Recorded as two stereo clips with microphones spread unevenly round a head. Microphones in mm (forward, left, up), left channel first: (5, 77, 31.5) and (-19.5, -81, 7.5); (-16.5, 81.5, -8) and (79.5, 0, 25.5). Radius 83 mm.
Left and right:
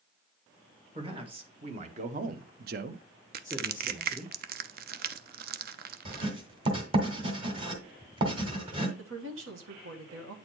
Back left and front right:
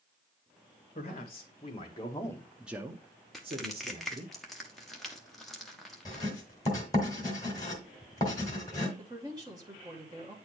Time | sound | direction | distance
0.9 | a man speaking | 160° right | 1.8 m
3.3 | crushing | 130° right | 0.6 m
6.0 | writing | 150° right | 1.7 m
9.0 | a woman speaking | 105° right | 1.4 m